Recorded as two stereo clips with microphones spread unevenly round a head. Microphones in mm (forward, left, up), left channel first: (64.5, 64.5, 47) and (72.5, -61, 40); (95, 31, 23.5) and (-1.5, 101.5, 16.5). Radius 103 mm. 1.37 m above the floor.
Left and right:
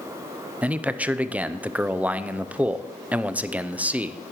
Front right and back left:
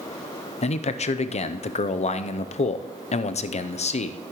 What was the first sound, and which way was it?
A man speaking, 10° right.